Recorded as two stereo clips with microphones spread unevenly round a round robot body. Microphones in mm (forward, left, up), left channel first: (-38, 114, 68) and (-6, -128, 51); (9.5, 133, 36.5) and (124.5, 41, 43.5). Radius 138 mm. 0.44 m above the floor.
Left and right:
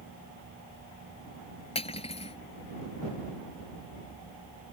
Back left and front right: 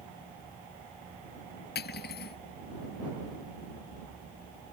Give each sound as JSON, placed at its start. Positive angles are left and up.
{"t": 1.8, "sound": "cutlery clinking", "azimuth_deg": 165}